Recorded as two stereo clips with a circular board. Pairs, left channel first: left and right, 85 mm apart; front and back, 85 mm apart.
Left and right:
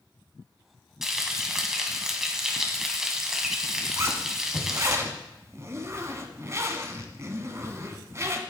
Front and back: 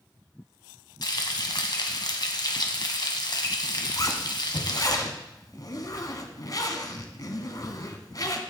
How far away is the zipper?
About 1.0 m.